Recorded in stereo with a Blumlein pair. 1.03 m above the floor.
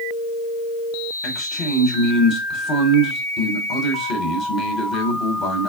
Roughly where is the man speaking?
Ahead left.